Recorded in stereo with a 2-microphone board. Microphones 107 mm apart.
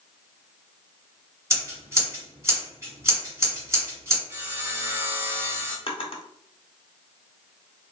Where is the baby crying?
I don't hear a baby crying.